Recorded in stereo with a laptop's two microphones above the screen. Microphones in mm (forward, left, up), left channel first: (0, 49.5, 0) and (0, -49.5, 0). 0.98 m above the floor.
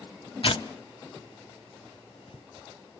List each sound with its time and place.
0.4 s tearing paper: 65° left (ahead or behind), 0.8 m